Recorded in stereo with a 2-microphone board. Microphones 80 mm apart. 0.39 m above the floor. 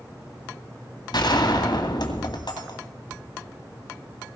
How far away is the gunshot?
About 2 m.